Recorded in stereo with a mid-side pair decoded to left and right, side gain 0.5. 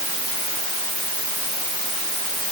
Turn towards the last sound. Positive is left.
No sound to turn to.